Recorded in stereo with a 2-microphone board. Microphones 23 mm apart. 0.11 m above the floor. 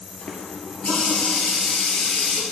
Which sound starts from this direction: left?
A running tap, at 0.2 s.